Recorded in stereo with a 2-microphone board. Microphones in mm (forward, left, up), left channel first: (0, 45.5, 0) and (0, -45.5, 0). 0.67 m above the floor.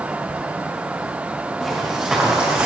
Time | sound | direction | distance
1.6 | footsteps | 5° left (ahead or behind) | 4.5 m